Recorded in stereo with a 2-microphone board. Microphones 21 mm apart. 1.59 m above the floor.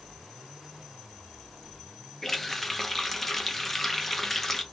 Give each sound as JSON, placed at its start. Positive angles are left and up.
{"t": 2.2, "sound": "a running tap", "side_deg": 15, "distance_m": 0.8}